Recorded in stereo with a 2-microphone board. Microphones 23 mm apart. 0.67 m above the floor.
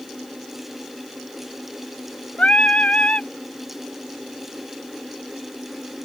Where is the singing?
70° left (ahead or behind).